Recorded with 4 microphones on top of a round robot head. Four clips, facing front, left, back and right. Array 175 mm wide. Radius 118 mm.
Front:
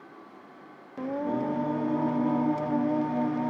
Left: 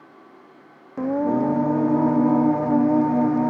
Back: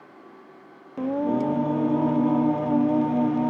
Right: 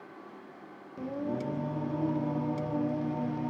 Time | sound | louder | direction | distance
1.0 | singing | left 13 dB, back 5 dB | 115° left | 0.8 m